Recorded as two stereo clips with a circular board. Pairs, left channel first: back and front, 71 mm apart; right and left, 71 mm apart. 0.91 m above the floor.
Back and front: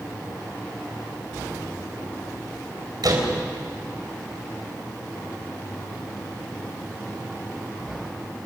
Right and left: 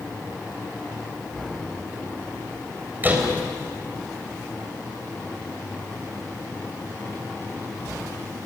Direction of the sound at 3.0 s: 25° left.